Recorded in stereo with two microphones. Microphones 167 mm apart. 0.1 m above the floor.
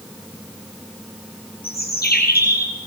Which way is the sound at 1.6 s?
65° left (ahead or behind).